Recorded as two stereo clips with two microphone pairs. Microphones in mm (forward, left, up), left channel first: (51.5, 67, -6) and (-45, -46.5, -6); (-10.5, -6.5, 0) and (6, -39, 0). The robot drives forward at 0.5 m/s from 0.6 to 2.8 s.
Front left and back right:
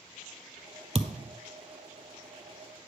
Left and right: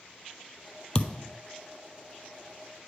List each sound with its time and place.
0.9 s a thud: 175° right, 0.5 m